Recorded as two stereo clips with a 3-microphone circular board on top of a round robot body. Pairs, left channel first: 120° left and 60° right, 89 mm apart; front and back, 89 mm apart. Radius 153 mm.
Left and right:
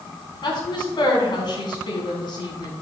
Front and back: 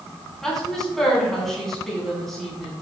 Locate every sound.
0.4 s a woman speaking: 85° left, 4 m